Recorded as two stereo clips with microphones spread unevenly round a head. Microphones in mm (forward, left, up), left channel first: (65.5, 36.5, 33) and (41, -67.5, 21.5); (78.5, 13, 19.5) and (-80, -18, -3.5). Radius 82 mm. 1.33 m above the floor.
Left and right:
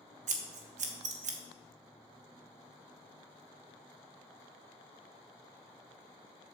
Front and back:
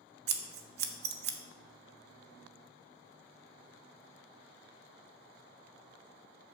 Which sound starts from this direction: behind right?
Scissors, at 0.3 s.